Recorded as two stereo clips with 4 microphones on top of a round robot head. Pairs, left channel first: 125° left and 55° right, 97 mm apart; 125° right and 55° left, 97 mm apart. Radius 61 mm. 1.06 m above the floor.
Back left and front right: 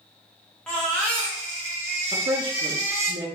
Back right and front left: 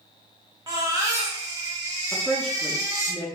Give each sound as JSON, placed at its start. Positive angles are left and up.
{"t": 0.7, "sound": "a baby crying", "azimuth_deg": 50, "distance_m": 0.5}
{"t": 2.1, "sound": "a woman speaking", "azimuth_deg": -35, "distance_m": 0.7}